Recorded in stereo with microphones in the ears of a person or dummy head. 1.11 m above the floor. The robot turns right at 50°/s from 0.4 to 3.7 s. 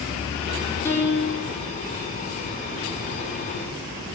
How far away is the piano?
About 4 m.